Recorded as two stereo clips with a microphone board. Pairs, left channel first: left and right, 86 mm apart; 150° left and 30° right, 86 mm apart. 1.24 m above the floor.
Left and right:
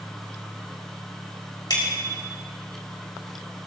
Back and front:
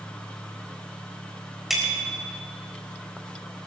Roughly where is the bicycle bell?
Ahead left.